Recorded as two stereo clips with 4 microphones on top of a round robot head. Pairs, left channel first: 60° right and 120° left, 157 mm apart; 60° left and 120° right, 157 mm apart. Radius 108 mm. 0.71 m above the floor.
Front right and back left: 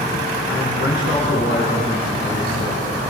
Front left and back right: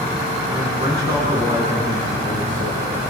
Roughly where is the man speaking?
Ahead right.